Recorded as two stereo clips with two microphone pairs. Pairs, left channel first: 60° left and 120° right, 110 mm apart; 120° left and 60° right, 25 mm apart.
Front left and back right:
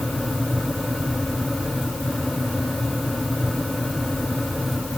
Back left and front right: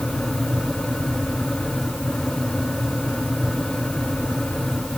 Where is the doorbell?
I don't hear a doorbell.